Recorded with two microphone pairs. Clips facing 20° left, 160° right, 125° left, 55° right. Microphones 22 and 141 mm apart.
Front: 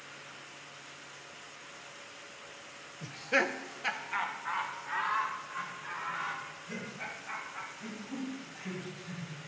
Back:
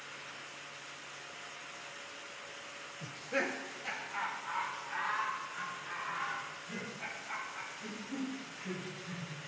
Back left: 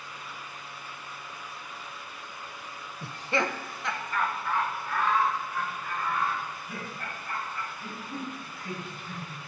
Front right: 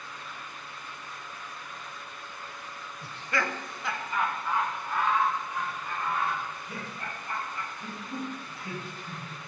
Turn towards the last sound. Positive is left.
turn(degrees=5)